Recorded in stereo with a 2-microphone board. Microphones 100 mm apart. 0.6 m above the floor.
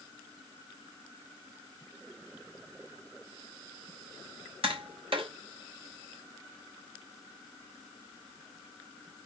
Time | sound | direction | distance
4.6 | tapping | 65° right (ahead or behind) | 3 m